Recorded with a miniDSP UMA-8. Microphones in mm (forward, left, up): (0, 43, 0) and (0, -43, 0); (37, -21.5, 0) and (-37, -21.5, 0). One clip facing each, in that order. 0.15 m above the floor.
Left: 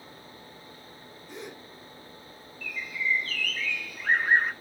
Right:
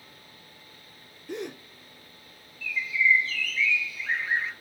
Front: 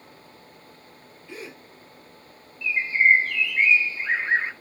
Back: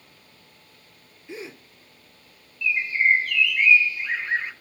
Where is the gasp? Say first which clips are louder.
Right 7 dB, back 2 dB; 110° right, 3 m.